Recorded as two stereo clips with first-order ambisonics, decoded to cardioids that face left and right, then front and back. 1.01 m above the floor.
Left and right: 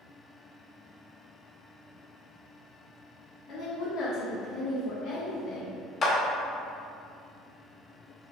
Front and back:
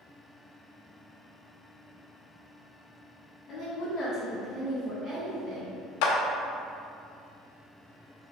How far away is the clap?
About 0.7 m.